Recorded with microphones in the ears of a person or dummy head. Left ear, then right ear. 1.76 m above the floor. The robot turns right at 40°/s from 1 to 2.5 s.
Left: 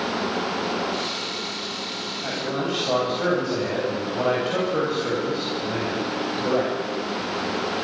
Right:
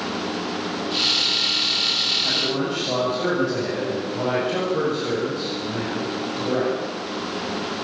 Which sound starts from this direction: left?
A man speaking, at 2.2 s.